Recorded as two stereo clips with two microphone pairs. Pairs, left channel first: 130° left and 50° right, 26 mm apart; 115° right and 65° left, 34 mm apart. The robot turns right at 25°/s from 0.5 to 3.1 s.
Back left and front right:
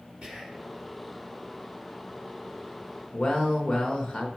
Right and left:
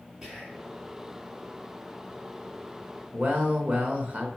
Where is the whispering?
10° right, 2.5 m; by 0.7 s 5° right, 2.5 m.